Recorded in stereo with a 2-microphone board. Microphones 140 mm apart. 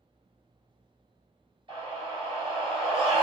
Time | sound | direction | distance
1.7 | a scream | 30° right (ahead or behind) | 1.9 m